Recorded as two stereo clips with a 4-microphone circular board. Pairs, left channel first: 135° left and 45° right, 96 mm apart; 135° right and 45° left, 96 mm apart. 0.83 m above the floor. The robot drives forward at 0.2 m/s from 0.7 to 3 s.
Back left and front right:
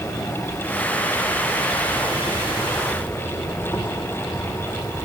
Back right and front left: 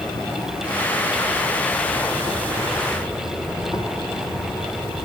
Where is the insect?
175° right, 3 m.